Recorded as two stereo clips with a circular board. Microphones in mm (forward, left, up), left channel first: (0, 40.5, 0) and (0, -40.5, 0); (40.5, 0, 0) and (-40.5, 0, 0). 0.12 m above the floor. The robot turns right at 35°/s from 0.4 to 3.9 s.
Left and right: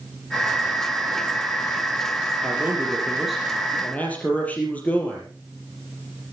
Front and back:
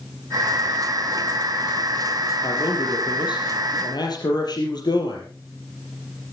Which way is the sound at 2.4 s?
30° right.